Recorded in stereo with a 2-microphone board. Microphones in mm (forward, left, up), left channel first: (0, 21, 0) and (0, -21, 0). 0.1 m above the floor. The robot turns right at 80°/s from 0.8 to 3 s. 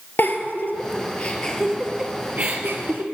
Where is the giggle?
50° left (ahead or behind), 1.6 m; by 3.0 s 50° right (ahead or behind), 1.6 m.